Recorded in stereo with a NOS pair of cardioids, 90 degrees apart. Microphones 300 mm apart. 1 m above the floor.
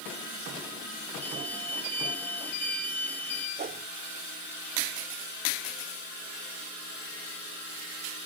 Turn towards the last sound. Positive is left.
turn(degrees=-30)